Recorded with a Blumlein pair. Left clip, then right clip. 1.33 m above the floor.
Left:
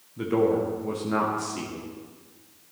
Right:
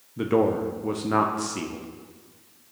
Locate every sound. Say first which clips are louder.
0.2 s a man speaking: right 1 dB; 15° right, 0.8 m